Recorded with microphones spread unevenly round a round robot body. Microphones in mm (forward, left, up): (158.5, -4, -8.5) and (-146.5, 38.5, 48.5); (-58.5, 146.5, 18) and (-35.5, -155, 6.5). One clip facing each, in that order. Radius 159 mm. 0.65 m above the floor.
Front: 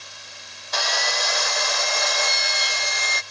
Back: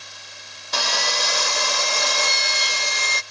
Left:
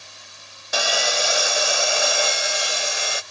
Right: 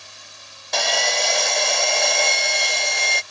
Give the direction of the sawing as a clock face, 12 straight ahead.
6 o'clock.